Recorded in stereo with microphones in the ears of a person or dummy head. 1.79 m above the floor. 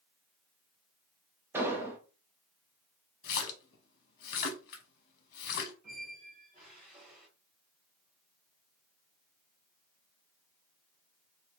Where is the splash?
55° left (ahead or behind), 0.8 m.